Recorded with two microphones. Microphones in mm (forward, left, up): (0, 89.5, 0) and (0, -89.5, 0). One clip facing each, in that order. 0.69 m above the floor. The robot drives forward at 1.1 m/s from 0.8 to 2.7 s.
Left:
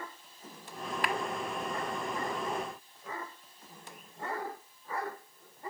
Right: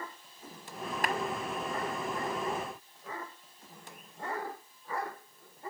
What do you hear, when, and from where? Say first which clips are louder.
1.0 s a clap: right 1 dB; 40° right (ahead or behind); by 1.1 s 35° right (ahead or behind)